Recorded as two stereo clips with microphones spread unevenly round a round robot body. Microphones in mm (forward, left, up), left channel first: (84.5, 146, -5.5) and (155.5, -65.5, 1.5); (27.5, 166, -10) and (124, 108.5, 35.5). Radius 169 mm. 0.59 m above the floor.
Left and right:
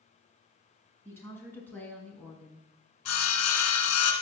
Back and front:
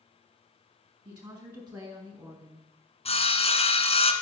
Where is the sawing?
105° left, 1.6 m.